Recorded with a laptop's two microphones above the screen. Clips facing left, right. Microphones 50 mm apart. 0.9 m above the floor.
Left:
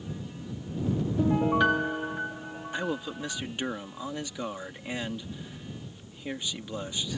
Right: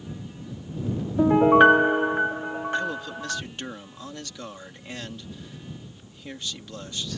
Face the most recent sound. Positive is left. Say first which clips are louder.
# right 4 dB
turn(degrees=15)  # may be behind; listen again after turning